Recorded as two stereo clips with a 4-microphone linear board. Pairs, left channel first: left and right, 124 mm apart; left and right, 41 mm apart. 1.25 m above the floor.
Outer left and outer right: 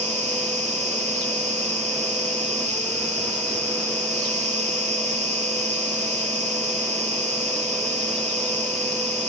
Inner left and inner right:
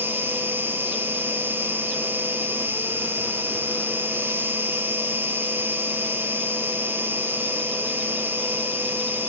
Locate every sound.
0.0 s an insect: 65° right (ahead or behind), 2.5 m